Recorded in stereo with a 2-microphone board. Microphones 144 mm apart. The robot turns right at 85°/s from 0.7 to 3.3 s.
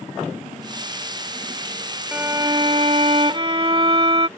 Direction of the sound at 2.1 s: 160° right.